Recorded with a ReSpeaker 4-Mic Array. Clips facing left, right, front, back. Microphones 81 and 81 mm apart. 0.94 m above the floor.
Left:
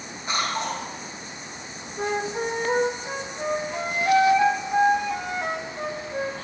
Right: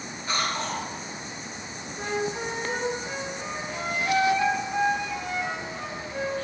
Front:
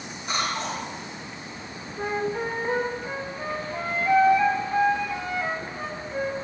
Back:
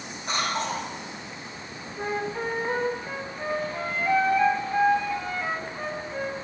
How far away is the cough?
About 1.9 m.